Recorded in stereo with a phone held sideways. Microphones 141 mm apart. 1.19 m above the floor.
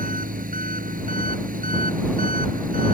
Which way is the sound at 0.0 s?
85° right.